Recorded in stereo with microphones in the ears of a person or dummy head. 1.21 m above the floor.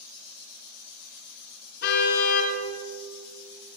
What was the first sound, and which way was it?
A car horn, 55° left (ahead or behind).